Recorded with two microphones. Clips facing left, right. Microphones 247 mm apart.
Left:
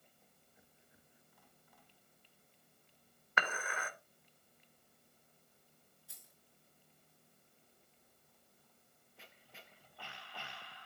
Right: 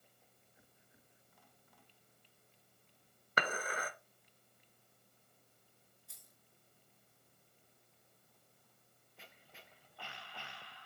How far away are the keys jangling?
About 5 m.